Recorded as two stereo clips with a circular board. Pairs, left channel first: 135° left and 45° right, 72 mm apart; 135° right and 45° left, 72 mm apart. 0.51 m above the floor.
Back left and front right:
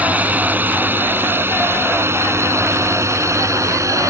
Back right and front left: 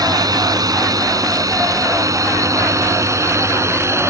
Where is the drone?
20° left; by 4.1 s 5° right.